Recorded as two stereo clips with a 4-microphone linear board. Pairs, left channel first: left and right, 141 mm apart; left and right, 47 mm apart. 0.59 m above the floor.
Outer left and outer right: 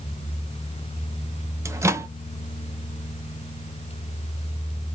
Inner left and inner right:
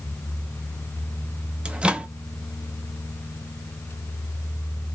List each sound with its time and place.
1.6 s a microwave: 20° right (ahead or behind), 0.6 m